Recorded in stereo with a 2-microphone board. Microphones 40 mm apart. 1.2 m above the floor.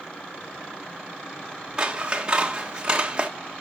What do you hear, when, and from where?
1.8 s scissors: 25° right (ahead or behind), 1.5 m